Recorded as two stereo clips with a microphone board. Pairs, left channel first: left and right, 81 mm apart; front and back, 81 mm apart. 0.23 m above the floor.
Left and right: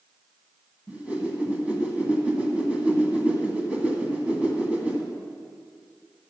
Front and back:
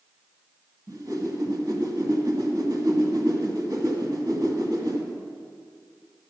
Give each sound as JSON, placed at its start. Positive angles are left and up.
{"t": 0.9, "sound": "a whoosh", "azimuth_deg": -160, "distance_m": 1.7}